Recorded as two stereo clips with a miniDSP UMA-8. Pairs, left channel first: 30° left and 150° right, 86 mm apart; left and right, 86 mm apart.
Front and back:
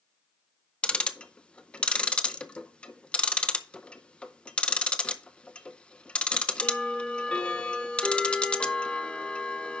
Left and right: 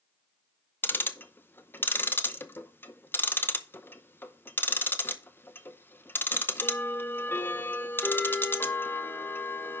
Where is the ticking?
85° left, 0.6 m.